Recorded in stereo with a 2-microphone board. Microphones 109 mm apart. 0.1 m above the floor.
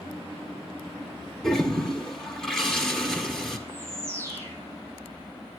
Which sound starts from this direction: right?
A bird, at 3.7 s.